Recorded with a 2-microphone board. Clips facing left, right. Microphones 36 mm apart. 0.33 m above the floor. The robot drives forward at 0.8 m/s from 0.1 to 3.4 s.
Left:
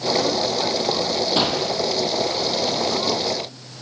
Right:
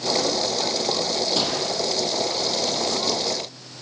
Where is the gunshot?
30° left (ahead or behind), 3.5 m; by 1.8 s 35° left (ahead or behind), 3.5 m.